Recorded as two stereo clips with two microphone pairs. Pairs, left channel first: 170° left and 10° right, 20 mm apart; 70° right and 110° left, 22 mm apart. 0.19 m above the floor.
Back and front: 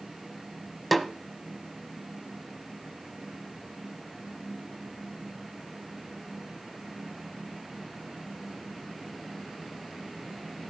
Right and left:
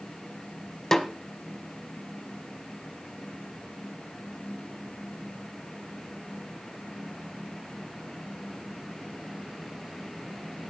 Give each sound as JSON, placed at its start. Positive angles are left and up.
{"t": 0.9, "sound": "a snare drum", "azimuth_deg": -95, "distance_m": 1.0}